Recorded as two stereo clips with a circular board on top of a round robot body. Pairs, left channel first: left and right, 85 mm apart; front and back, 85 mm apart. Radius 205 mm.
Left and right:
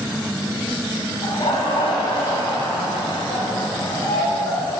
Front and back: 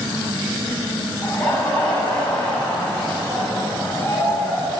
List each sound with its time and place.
1.2 s laughter: 75° left, 4 m